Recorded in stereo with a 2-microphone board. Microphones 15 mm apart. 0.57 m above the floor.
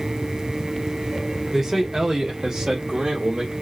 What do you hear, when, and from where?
1.5 s a man speaking: 30° right (ahead or behind), 1.2 m; by 3.5 s 65° right (ahead or behind), 1.6 m